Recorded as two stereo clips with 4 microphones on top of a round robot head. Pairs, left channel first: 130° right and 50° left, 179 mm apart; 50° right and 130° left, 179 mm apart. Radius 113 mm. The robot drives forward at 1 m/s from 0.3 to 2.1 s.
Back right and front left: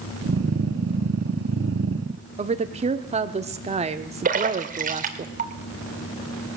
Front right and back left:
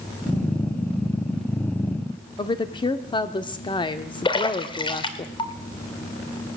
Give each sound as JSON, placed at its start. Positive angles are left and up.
{"t": 2.4, "sound": "a woman speaking", "azimuth_deg": 10, "distance_m": 1.2}
{"t": 4.2, "sound": "a splash", "azimuth_deg": 15, "distance_m": 2.5}